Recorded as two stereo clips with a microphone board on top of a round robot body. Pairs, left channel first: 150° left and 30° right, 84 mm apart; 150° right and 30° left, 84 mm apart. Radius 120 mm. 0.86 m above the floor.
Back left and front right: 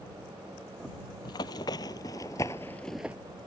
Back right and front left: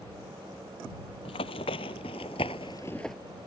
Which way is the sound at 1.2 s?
165° right.